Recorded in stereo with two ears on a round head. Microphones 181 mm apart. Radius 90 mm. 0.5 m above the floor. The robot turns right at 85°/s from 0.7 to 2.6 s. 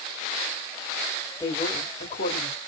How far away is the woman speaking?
About 1.6 m.